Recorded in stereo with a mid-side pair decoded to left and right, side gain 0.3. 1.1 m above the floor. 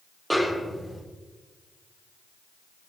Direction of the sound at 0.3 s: 5° right.